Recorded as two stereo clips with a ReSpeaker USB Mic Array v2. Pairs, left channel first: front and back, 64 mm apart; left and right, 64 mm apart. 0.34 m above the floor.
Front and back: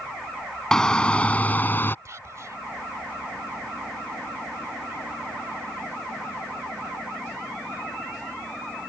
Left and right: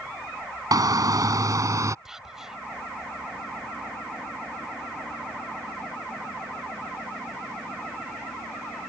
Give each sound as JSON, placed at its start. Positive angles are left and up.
{"t": 0.7, "sound": "a shout", "azimuth_deg": -80}
{"t": 2.0, "sound": "whispering", "azimuth_deg": -170}